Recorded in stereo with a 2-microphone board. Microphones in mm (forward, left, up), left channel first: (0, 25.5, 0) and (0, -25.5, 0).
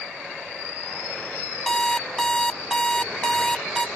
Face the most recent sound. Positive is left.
turn(degrees=15)  # may be behind; listen again after turning